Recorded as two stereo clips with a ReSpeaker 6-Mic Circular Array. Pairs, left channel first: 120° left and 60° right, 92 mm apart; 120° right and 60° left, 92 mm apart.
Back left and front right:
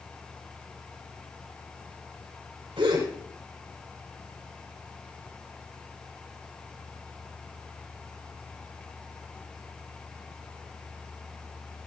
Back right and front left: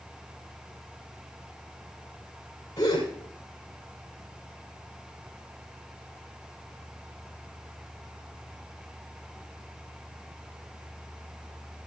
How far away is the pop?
No pop in this recording.